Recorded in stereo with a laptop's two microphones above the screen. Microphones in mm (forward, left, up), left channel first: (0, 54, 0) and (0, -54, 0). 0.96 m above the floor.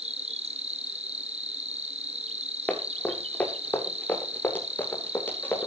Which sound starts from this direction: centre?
Running footsteps, at 2.7 s.